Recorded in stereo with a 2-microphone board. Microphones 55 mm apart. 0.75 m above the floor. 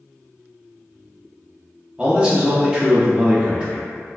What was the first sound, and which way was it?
A man speaking, 20° right (ahead or behind).